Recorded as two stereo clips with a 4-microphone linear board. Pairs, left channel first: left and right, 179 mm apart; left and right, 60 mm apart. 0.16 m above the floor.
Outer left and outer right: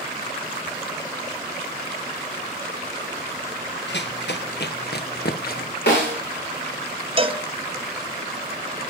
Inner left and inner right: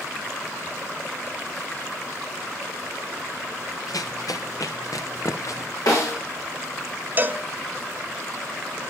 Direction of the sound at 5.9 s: 70° left (ahead or behind).